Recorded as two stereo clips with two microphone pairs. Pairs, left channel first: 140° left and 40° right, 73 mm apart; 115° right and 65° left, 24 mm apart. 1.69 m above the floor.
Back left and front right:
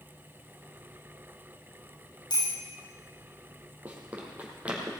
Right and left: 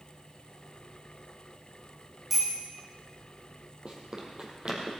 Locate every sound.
2.3 s a bicycle bell: 145° left, 6.5 m
3.9 s running footsteps: 25° left, 3.5 m; by 4.9 s 30° left, 4 m